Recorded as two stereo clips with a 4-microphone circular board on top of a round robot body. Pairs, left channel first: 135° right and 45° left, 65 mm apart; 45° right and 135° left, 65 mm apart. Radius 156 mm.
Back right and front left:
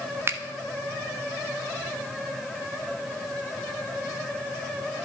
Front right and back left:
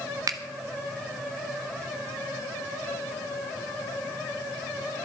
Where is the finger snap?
100° left, 1.0 m.